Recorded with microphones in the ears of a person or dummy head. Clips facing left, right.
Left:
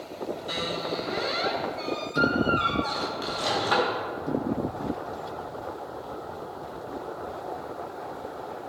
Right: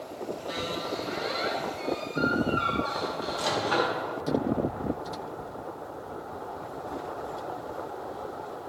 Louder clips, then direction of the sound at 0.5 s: Left 1 dB; 65° left (ahead or behind).